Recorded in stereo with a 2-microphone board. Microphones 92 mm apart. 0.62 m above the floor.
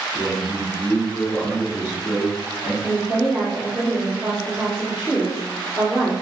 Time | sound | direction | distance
0.1 | a man speaking | 25° left (ahead or behind) | 1.3 m
2.8 | a woman speaking | 15° left (ahead or behind) | 1.0 m